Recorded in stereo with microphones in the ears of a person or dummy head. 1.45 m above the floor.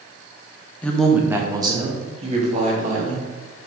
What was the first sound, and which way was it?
A woman speaking, 15° left (ahead or behind).